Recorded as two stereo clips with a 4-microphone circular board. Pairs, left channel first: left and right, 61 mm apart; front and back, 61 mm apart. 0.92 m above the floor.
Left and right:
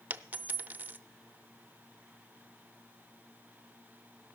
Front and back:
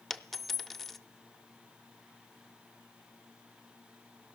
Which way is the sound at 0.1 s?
85° right.